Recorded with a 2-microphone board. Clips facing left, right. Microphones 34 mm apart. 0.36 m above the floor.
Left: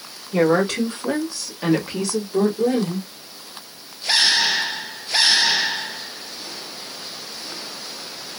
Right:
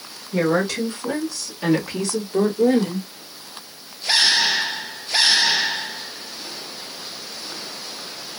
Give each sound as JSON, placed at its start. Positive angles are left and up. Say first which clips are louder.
{"t": 0.3, "sound": "a woman speaking", "louder": "left 2 dB", "side_deg": 45, "distance_m": 1.5}